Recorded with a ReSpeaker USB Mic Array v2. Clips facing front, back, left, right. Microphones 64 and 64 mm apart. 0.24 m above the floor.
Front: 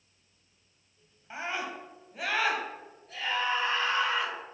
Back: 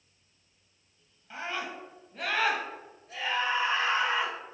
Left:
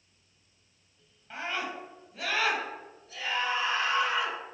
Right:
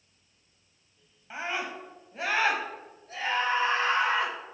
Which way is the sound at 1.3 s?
30° right.